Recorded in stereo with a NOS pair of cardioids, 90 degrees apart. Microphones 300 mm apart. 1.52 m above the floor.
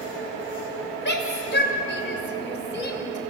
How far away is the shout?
About 7 m.